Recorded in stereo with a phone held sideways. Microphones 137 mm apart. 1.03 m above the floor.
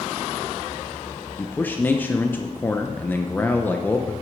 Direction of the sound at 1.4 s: 15° left (ahead or behind).